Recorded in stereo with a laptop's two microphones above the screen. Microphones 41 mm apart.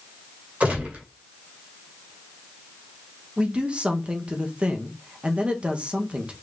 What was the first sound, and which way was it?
A gunshot, 40° right (ahead or behind).